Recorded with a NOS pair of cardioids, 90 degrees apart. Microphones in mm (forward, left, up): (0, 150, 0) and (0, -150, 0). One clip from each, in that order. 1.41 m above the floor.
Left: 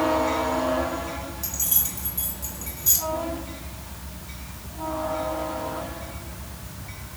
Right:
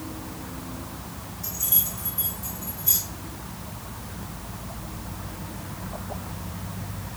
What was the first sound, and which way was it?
Keys jangling, 70° left.